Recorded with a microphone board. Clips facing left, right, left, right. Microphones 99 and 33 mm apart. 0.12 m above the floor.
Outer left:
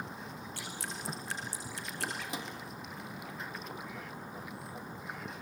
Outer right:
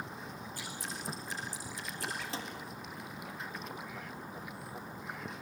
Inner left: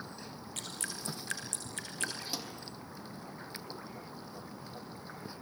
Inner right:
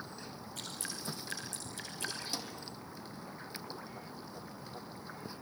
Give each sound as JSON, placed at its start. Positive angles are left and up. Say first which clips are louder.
{"t": 0.6, "sound": "dripping", "louder": "outer left 1 dB, inner left 2 dB", "side_deg": 70, "distance_m": 4.5}
{"t": 2.2, "sound": "a microwave", "louder": "even, inner left 1 dB", "side_deg": 20, "distance_m": 4.0}